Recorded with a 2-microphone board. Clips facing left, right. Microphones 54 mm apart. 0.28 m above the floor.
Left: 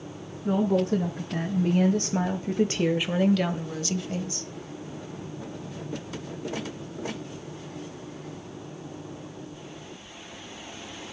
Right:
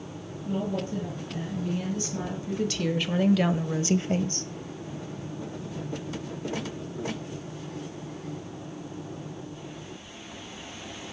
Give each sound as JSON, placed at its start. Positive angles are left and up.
{"t": 0.5, "sound": "a woman speaking", "side_deg": 70, "distance_m": 2.5}